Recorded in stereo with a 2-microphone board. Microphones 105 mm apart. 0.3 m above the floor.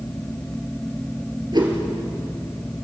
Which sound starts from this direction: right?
A whoosh, at 1.5 s.